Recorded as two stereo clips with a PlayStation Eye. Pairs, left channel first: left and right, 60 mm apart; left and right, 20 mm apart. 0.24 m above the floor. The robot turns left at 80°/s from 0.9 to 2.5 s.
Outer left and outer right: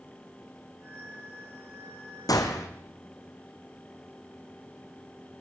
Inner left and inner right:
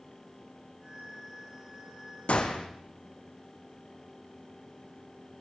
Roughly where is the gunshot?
Left.